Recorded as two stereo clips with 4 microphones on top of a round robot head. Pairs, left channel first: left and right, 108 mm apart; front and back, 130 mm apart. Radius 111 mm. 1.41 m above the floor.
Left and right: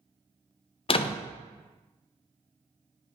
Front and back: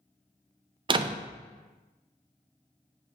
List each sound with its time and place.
0.9 s a door slam: 125° left, 0.5 m